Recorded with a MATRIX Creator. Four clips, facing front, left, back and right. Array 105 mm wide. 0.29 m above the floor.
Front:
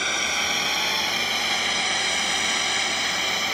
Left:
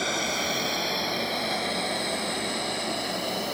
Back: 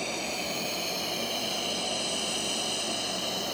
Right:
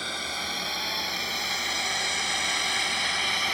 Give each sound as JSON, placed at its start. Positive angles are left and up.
{"t": 0.0, "sound": "a drone", "azimuth_deg": 10}